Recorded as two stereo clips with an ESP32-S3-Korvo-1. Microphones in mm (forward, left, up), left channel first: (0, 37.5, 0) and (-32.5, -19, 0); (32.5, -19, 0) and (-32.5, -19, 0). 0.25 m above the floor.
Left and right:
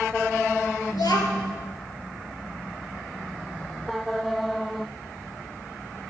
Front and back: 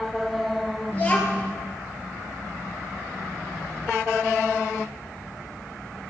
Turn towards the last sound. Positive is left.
turn(degrees=65)